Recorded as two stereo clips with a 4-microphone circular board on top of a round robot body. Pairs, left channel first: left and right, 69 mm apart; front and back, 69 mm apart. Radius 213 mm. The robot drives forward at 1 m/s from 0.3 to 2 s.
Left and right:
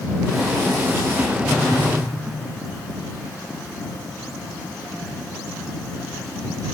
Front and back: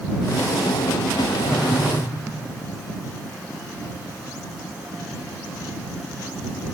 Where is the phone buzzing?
15° left, 5 m; by 1.9 s 20° left, 4.5 m.